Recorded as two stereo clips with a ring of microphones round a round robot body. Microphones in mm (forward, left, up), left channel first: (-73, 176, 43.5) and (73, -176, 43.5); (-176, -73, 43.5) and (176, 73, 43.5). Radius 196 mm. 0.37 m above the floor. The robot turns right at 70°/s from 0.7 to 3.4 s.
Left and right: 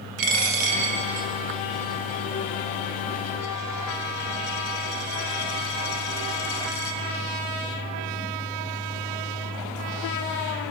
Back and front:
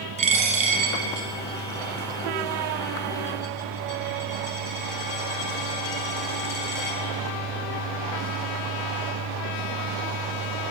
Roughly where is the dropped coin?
Ahead right.